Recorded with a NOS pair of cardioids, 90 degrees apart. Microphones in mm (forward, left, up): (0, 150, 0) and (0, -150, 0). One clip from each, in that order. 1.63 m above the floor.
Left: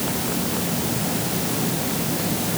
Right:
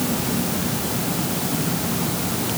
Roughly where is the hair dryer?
No hair dryer in this recording.